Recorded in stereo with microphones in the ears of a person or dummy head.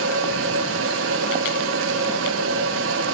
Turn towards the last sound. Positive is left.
turn(degrees=-85)